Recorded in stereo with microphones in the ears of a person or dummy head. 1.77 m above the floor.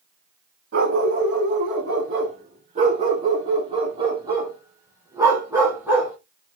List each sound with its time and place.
0.7 s a dog barking: 55° right (ahead or behind), 4.5 m; by 6.2 s 10° right (ahead or behind), 4 m